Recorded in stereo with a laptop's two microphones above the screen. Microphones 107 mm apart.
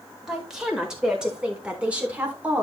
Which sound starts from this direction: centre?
A woman speaking, at 0.3 s.